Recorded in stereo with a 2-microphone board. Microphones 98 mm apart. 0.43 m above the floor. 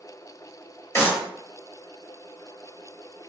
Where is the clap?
30° left (ahead or behind), 1.4 m.